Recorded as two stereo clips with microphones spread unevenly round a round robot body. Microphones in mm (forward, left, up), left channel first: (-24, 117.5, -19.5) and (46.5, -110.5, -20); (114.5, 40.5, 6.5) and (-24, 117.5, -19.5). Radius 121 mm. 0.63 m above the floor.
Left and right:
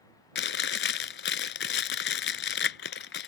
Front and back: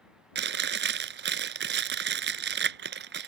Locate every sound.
0.3 s chewing: 155° left